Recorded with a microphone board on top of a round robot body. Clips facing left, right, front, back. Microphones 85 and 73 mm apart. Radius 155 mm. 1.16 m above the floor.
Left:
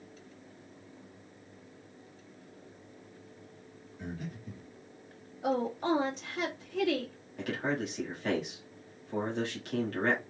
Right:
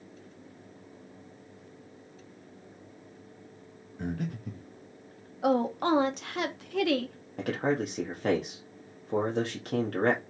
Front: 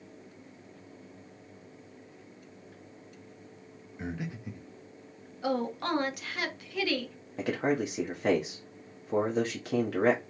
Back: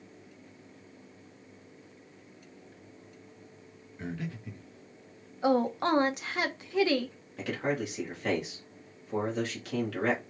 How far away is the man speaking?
About 1.0 m.